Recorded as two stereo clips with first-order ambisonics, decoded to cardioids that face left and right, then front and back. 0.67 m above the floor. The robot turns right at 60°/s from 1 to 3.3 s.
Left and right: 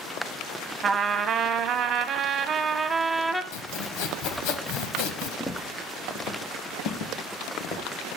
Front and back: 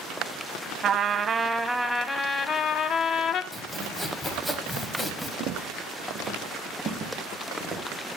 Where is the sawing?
90° left, 1.0 m.